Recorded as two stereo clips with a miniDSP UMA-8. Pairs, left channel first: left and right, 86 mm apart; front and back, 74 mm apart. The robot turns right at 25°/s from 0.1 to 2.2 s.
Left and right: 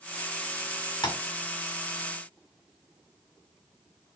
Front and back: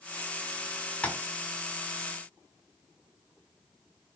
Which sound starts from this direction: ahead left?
Tapping, at 1.0 s.